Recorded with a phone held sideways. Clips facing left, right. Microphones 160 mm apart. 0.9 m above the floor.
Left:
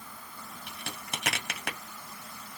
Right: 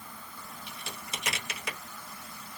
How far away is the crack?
About 1.4 m.